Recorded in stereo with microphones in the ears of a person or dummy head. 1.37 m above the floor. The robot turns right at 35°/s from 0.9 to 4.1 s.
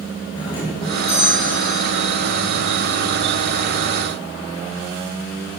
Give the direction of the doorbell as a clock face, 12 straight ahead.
7 o'clock.